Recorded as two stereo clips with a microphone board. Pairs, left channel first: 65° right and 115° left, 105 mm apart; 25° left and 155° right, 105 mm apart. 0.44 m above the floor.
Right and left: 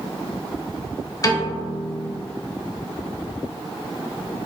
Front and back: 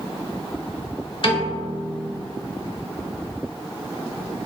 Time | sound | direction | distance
1.2 | a piano | 10° right | 0.6 m